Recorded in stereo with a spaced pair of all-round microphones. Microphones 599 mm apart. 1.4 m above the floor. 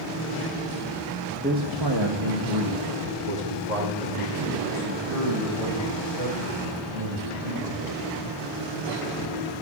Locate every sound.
1.4 s a man speaking: 15° right (ahead or behind), 1.1 m; by 8.1 s 70° right (ahead or behind), 7 m